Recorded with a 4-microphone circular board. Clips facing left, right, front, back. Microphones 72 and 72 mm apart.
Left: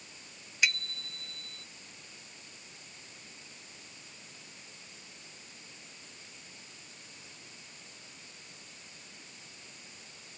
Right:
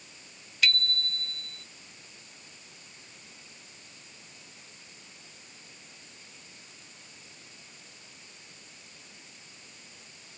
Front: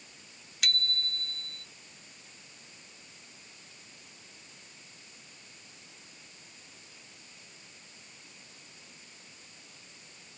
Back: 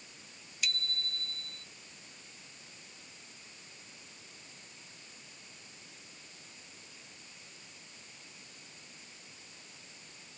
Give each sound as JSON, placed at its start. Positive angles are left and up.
{"t": 0.6, "sound": "a bicycle bell", "azimuth_deg": 20}